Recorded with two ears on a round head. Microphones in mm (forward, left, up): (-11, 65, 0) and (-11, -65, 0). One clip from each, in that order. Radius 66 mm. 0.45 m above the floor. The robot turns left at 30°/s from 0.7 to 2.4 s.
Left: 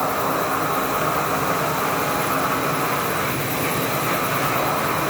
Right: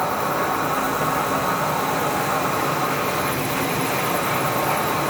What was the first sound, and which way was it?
An insect, 85° left.